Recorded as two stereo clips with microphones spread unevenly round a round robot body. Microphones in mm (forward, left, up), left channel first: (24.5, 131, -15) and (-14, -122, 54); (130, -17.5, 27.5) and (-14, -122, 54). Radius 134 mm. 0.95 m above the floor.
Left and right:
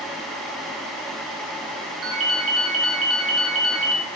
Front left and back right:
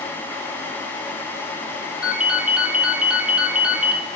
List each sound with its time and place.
2.0 s a ringtone: 60° right, 0.8 m